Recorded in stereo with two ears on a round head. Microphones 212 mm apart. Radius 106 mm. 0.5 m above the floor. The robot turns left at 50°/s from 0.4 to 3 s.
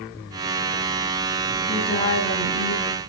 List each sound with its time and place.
1.7 s a woman speaking: 175° right, 3.5 m; by 3.0 s 120° left, 3.5 m